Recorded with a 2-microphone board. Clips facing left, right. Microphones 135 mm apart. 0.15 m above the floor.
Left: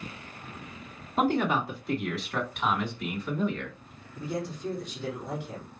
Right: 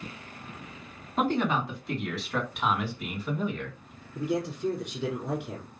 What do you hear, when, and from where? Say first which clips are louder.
1.2 s a man speaking: left 1 dB; 10° left (ahead or behind), 1.5 m; by 3.8 s 15° right (ahead or behind), 1.7 m
4.2 s a man speaking: right 4 dB; 65° right (ahead or behind), 4 m